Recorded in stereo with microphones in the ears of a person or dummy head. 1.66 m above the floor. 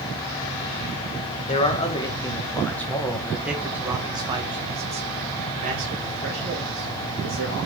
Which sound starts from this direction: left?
A man speaking, at 1.5 s.